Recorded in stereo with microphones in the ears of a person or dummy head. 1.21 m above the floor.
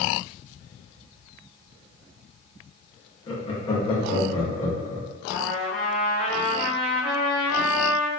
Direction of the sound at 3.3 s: 35° left (ahead or behind).